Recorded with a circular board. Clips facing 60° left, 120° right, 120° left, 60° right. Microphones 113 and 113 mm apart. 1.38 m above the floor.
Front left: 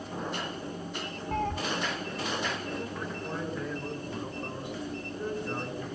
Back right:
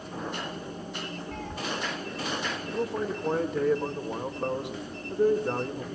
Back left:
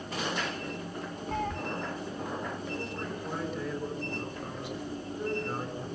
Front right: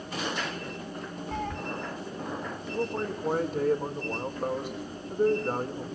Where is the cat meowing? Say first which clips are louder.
Front left 6 dB, back left 1 dB; 30° left, 1.9 m.